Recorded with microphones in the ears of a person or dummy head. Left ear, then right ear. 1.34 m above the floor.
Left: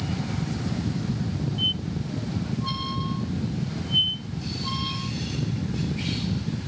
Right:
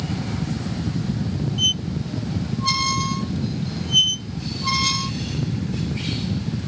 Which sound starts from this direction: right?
A squeak, at 1.6 s.